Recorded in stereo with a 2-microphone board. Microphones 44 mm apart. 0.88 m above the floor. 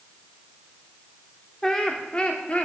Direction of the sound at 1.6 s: 10° left (ahead or behind).